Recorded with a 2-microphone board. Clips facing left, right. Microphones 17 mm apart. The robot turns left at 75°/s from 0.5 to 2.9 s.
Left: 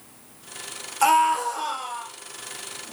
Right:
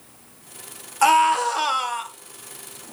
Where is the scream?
5° right, 2.5 m; by 2.1 s 85° right, 2.5 m.